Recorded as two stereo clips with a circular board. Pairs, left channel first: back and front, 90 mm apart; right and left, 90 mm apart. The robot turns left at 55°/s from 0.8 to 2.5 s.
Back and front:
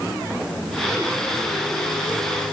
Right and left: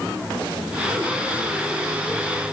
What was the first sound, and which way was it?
Only background noise.